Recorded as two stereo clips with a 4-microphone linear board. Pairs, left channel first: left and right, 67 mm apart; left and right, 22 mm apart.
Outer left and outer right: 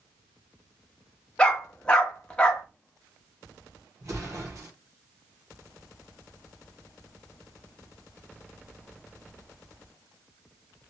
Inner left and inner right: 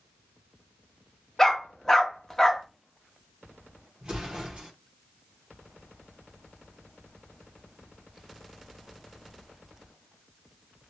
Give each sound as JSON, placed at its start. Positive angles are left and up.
{"t": 1.4, "sound": "a dog barking", "side_deg": 15, "distance_m": 0.8}
{"t": 4.0, "sound": "an explosion", "side_deg": -55, "distance_m": 1.2}